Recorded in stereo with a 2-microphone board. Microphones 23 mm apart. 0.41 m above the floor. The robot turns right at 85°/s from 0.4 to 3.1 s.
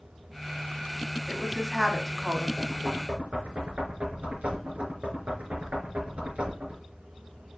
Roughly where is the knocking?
Right.